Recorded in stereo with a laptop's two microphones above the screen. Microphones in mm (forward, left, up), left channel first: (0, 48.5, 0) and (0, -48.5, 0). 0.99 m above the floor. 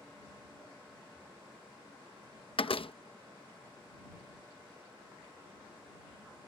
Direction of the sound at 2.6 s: 70° left (ahead or behind).